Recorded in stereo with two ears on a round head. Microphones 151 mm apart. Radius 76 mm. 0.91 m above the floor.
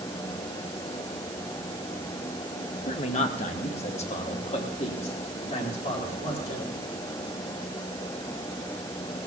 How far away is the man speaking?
About 0.8 m.